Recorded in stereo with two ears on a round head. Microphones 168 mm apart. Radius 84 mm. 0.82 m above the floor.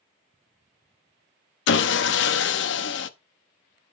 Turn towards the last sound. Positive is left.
turn(degrees=65)  # may be behind; listen again after turning